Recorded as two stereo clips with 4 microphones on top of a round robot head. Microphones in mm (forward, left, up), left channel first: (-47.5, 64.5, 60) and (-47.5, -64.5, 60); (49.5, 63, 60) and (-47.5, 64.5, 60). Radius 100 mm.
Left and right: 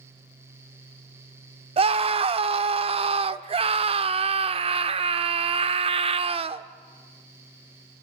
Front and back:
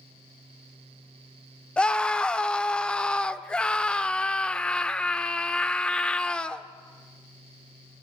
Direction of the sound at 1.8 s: 80° right.